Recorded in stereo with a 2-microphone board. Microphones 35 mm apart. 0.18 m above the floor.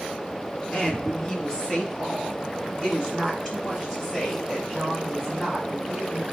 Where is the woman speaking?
25° left (ahead or behind), 3 m; by 6.2 s 10° left (ahead or behind), 6 m.